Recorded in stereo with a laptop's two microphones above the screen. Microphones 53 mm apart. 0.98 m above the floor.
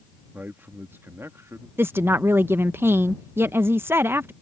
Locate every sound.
0.3 s a man speaking: 35° right (ahead or behind); by 1.7 s 60° right (ahead or behind)
1.8 s a woman speaking: 45° right (ahead or behind)